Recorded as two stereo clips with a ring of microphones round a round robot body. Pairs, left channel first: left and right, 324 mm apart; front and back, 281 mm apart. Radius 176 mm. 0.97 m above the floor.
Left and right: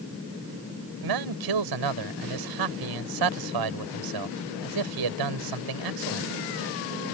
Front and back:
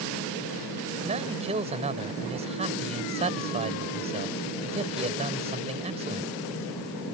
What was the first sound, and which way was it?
A man speaking, 110° right.